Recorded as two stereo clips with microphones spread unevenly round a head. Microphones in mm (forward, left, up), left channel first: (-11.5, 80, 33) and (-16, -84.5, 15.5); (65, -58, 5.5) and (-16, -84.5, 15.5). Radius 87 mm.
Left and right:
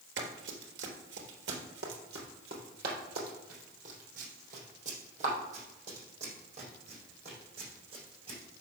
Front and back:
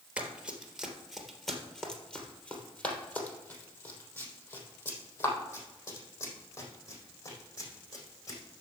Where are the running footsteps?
95° right, 2.5 m; by 8.4 s 30° right, 6 m.